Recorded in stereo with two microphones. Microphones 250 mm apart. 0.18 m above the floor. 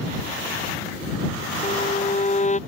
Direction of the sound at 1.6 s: 30° left (ahead or behind).